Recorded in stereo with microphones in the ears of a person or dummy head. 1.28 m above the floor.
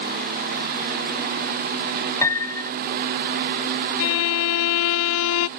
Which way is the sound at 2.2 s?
20° left (ahead or behind).